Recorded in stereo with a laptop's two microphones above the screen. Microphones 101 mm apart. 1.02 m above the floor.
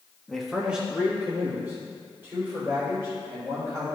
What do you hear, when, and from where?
0.3 s a man speaking: 5° left (ahead or behind), 0.8 m; by 3.9 s 25° right (ahead or behind), 4 m